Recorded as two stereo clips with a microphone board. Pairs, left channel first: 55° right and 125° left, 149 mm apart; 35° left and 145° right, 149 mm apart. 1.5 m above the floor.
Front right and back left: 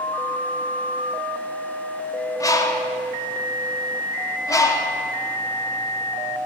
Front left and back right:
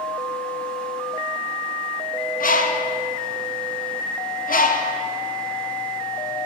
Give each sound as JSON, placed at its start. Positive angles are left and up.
{"t": 2.4, "sound": "a bird", "azimuth_deg": 10, "distance_m": 0.6}